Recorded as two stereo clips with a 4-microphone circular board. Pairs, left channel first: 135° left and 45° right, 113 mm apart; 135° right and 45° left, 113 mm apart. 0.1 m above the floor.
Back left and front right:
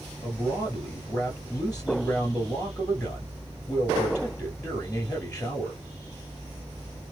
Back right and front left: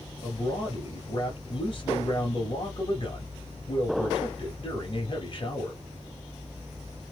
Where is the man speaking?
150° right, 2 m.